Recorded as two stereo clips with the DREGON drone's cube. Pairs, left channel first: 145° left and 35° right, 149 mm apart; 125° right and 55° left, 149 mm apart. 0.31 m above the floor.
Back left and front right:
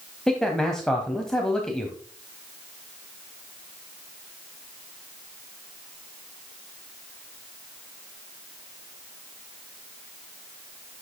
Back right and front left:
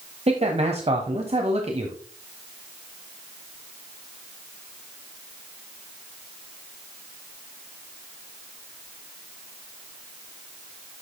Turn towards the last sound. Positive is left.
turn(degrees=60)